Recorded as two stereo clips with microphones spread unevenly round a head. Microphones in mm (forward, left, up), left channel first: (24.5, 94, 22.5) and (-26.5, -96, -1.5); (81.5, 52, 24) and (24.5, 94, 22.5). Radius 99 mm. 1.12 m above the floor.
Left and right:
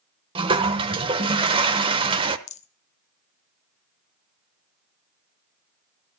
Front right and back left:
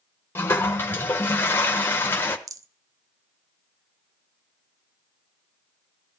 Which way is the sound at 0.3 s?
50° right.